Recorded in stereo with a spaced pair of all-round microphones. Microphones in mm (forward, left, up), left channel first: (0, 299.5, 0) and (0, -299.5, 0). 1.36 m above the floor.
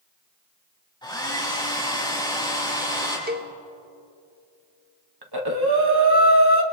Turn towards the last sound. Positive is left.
turn(degrees=-40)  # may be behind; listen again after turning